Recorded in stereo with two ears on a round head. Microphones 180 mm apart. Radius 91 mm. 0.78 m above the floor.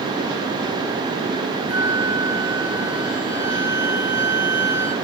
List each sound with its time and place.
1.7 s a flute: 10° right (ahead or behind), 1.3 m